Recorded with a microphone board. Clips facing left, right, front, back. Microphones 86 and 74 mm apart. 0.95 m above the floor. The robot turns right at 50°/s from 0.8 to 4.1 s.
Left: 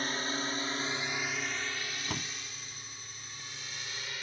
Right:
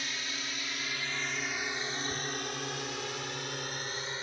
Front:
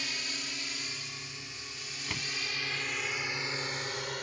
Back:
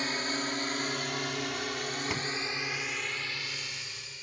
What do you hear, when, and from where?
0.0 s a drone: 135° left; by 4.2 s 30° right
2.1 s a door slam: 105° left; by 2.3 s 115° left